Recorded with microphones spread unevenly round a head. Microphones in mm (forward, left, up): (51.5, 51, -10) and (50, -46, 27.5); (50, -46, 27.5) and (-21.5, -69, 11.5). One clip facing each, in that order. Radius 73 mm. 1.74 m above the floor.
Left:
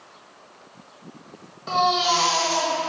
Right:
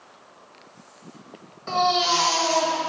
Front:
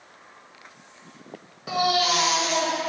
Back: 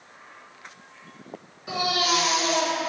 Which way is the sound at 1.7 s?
5° left.